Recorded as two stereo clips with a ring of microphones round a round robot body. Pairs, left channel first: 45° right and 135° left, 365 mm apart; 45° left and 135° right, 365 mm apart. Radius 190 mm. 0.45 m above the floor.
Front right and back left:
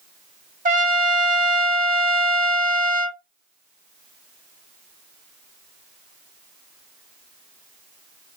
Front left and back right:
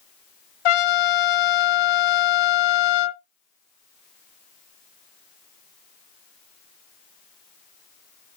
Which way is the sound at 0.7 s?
65° left.